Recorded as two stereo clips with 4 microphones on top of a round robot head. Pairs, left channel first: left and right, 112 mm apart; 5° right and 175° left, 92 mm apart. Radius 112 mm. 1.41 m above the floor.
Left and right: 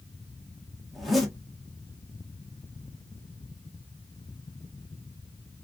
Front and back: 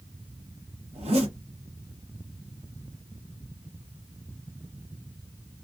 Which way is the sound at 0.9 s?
Straight behind.